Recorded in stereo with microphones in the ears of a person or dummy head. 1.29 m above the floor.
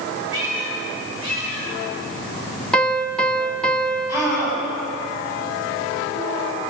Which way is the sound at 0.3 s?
75° right (ahead or behind).